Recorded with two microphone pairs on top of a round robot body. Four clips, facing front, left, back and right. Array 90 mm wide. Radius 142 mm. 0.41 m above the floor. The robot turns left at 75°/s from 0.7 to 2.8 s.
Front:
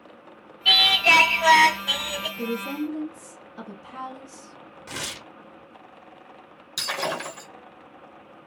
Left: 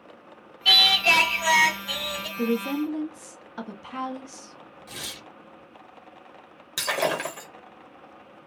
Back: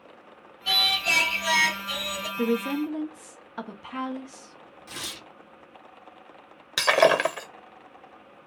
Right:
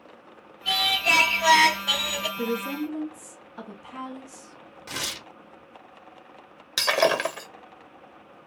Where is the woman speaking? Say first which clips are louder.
Left 5 dB, back 5 dB; straight behind, 1.0 m; by 4.6 s 145° left, 1.0 m.